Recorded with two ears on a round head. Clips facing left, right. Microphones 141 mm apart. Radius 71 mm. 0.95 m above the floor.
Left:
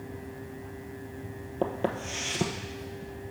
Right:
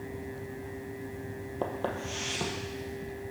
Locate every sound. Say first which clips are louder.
1.6 s footsteps: left 4 dB; 20° left (ahead or behind), 1.0 m